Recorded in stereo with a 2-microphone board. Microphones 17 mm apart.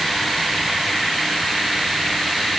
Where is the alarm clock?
No alarm clock in this recording.